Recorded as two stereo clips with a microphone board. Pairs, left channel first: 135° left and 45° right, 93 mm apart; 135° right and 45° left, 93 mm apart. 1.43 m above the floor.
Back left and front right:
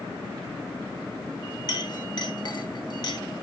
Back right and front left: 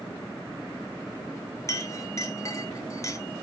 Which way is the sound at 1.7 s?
170° left.